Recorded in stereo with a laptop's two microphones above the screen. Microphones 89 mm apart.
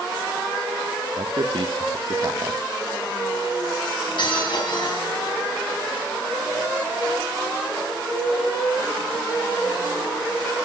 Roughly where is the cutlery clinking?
Left.